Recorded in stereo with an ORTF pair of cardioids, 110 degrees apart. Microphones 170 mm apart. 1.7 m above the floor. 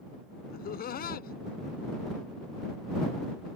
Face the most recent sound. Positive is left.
turn(degrees=55)